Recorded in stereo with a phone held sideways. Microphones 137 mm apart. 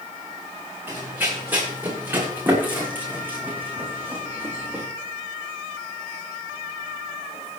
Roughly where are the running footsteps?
Centre.